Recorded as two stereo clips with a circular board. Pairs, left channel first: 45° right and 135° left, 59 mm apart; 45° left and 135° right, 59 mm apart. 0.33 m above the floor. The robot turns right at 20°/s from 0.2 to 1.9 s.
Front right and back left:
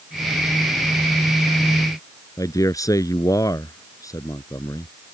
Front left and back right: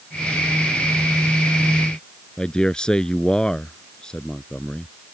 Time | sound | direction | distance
2.4 | a man speaking | 35° right | ?